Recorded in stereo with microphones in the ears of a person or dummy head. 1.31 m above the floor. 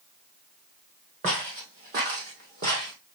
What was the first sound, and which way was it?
Footsteps, 35° right (ahead or behind).